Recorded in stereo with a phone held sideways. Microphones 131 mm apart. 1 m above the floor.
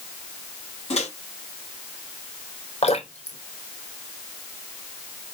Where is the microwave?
60° left (ahead or behind), 5 m.